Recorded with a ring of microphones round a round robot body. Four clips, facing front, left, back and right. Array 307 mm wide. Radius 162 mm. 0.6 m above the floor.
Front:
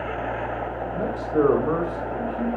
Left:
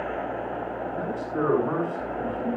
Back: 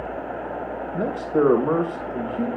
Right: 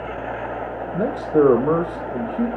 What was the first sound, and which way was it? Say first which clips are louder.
A man speaking: right 12 dB, back 2 dB; 100° right.